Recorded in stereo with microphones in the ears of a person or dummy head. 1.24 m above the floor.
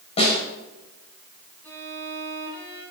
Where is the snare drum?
30° left (ahead or behind), 6 m.